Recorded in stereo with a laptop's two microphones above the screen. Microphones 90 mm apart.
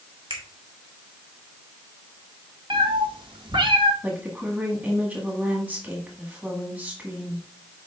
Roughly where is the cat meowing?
Right.